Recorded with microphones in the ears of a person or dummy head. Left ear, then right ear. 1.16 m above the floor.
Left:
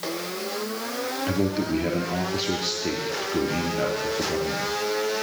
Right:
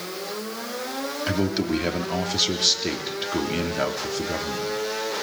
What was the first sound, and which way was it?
A man speaking, 40° right (ahead or behind).